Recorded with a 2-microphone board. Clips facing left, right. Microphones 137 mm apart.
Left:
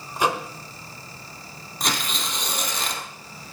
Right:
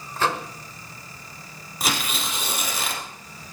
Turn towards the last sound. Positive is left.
turn(degrees=-5)  # may be behind; listen again after turning